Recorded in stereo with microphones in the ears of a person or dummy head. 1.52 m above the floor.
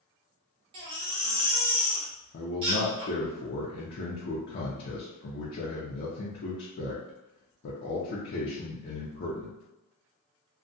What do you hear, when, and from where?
0.7 s a baby crying: 30° right (ahead or behind), 0.6 m
2.3 s a man speaking: 55° left (ahead or behind), 0.6 m